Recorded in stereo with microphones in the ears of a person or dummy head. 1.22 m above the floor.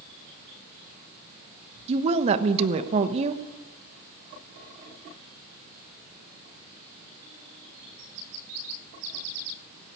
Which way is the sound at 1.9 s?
35° right (ahead or behind).